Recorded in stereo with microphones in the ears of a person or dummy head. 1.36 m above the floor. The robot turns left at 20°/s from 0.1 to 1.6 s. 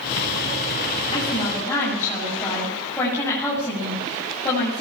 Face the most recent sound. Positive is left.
turn(degrees=15)  # may be behind; listen again after turning